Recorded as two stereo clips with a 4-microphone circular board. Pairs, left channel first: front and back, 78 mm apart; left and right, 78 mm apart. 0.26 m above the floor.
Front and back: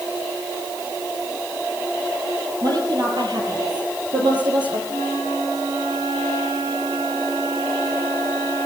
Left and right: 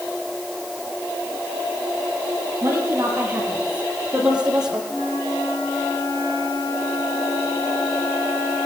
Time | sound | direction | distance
2.6 | a woman speaking | 150° right | 5.5 m
4.9 | a flute | 140° left | 5.5 m